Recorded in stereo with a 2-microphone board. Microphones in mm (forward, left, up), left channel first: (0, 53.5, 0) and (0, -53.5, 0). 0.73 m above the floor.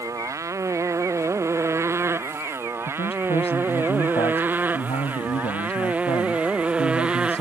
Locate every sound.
0.0 s a motorcycle: 30° right (ahead or behind); by 7.4 s 10° right (ahead or behind)
2.9 s a man speaking: 80° left